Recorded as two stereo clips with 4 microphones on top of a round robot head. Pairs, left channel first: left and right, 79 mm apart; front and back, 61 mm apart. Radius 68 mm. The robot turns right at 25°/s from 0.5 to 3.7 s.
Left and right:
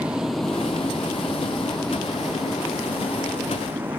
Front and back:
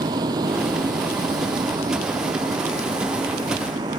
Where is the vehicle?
170° right; by 4.0 s 165° right.